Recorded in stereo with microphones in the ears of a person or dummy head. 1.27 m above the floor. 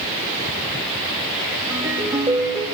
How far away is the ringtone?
About 4 m.